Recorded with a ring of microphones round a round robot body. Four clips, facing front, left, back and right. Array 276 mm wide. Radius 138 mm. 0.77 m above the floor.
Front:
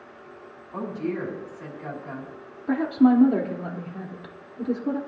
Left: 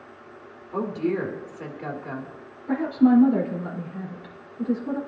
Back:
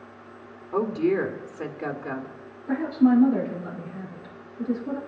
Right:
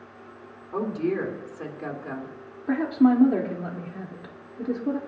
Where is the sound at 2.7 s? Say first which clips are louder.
Left 1 dB, front 1 dB; 50° right, 2.0 m.